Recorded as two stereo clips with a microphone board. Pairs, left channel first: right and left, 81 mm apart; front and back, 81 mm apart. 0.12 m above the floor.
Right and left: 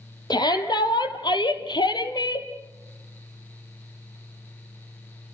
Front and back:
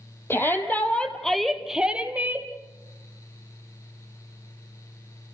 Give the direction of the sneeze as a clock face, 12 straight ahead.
I don't hear a sneeze.